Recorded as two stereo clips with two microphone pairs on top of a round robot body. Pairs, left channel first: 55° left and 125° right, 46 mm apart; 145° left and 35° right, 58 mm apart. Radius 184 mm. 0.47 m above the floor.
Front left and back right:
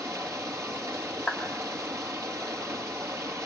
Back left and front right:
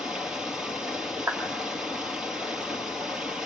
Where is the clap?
Straight ahead, 3 m.